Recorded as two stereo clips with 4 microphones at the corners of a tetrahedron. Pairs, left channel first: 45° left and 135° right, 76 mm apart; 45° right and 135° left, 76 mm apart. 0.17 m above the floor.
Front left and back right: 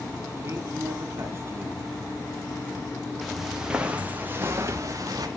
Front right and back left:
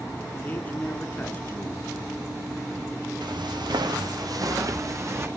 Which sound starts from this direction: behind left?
Footsteps, at 3.2 s.